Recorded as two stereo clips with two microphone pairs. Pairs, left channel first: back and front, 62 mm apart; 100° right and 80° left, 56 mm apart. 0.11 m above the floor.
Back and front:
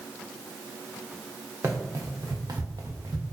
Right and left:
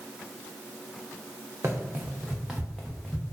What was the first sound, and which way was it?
Running footsteps, 40° left.